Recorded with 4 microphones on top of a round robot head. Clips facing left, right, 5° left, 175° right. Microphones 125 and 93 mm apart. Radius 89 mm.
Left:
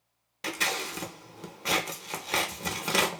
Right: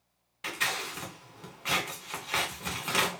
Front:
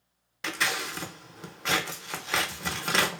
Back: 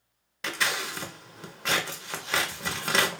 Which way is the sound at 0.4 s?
100° left.